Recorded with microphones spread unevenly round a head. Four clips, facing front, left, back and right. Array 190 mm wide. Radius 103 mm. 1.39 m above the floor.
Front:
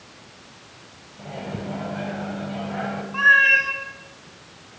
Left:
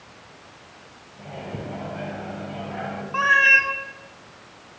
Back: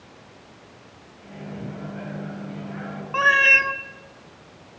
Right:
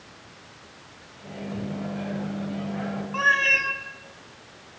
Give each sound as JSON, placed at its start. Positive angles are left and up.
{"t": 1.2, "sound": "a microwave", "azimuth_deg": 20, "distance_m": 8.5}
{"t": 3.1, "sound": "a cat meowing", "azimuth_deg": 180, "distance_m": 1.4}